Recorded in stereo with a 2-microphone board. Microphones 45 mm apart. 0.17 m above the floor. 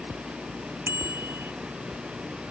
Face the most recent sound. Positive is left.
turn(degrees=-60)  # may be behind; listen again after turning